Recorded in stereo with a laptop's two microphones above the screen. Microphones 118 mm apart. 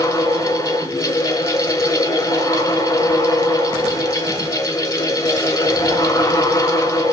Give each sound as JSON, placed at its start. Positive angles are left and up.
{"t": 0.0, "sound": "a fan", "side_deg": 25, "distance_m": 4.0}